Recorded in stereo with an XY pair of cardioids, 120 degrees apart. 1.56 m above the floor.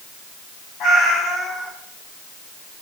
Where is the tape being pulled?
No tape being pulled in this recording.